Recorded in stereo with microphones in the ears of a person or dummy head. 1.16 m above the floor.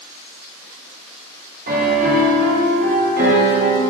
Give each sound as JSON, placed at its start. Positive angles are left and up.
{"t": 1.7, "sound": "a piano", "side_deg": -45, "distance_m": 1.2}